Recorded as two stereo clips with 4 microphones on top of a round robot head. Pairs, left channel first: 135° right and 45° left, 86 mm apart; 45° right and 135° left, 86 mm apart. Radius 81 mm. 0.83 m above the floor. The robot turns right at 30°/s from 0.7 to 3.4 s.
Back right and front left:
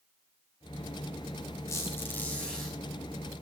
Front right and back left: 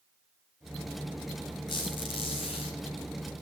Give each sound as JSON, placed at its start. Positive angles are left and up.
{"t": 1.7, "sound": "a squeak", "azimuth_deg": -80, "distance_m": 5.5}